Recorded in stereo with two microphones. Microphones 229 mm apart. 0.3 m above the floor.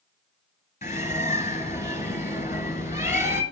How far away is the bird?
About 1.9 m.